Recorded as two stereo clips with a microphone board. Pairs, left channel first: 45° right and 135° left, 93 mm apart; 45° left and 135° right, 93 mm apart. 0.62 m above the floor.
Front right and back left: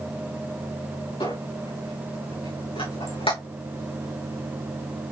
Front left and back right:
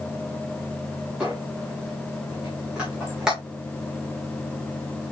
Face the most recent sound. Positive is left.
turn(degrees=-55)